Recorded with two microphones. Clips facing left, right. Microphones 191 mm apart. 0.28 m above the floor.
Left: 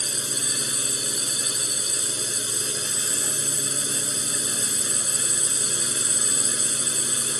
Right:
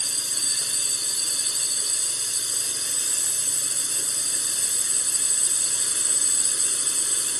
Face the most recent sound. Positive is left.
turn(degrees=70)  # may be behind; listen again after turning